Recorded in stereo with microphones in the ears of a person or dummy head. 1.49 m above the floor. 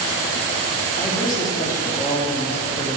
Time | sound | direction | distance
1.0 | a man speaking | 20° left (ahead or behind) | 3 m